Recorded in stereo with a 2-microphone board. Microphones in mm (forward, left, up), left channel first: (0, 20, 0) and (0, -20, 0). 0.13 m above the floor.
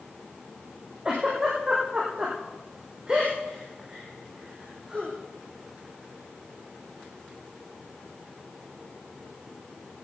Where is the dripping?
No dripping in this recording.